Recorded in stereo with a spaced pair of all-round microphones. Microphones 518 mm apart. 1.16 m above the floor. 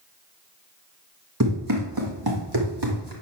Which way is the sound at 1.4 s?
35° right (ahead or behind).